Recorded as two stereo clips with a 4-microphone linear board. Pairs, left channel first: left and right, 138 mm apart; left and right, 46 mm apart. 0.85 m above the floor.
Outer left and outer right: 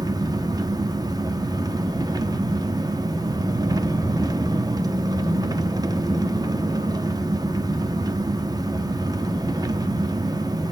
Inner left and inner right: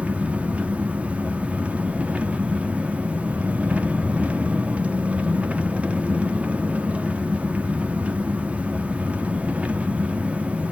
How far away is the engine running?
About 1.0 m.